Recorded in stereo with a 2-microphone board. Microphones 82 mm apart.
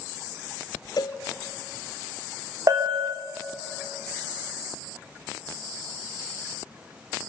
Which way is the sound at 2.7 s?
40° right (ahead or behind).